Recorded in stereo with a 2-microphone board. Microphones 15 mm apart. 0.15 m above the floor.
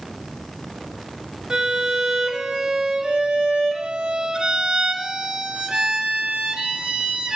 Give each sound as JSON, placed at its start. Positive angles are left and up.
{"t": 1.5, "sound": "a violin", "side_deg": -60, "distance_m": 0.6}